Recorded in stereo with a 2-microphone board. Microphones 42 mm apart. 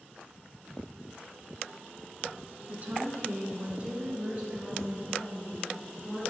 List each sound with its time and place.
2.7 s a woman speaking: 35° right (ahead or behind), 1.4 m; by 6.2 s 20° right (ahead or behind), 4 m